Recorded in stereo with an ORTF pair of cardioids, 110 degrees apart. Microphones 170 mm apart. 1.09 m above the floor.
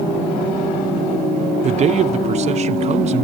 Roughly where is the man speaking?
Ahead right.